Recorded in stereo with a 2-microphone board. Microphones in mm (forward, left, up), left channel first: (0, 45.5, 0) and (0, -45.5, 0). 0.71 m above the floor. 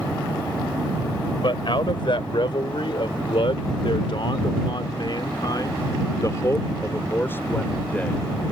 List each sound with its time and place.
1.4 s a man speaking: 60° left (ahead or behind); by 8.2 s 15° left (ahead or behind)